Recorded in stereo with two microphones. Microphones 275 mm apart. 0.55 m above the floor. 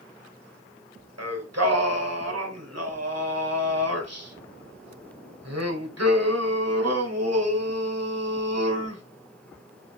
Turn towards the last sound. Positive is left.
turn(degrees=-70)  # may be behind; listen again after turning